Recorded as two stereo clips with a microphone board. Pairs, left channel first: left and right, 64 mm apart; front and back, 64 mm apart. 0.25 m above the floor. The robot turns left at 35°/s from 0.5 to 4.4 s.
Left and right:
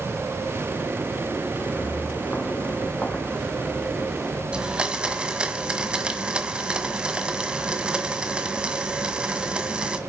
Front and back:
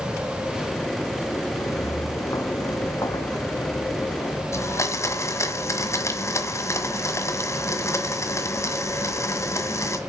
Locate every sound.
1.6 s footsteps: 30° left, 1.1 m; by 4.4 s straight ahead, 1.9 m
4.5 s a blender: 15° right, 1.5 m